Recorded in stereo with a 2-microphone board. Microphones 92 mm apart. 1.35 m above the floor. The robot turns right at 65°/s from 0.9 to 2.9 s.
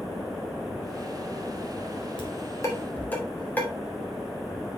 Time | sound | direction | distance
2.2 | dishes clattering | 65° left (ahead or behind) | 2.5 m